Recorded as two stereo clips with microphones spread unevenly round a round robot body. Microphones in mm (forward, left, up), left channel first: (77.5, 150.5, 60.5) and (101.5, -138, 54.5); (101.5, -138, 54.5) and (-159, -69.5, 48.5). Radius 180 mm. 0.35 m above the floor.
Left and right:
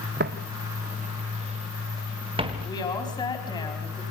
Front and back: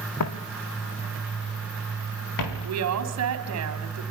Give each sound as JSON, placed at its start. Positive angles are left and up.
{"t": 0.2, "sound": "footsteps", "azimuth_deg": -30, "distance_m": 1.4}
{"t": 2.6, "sound": "a woman speaking", "azimuth_deg": 170, "distance_m": 3.5}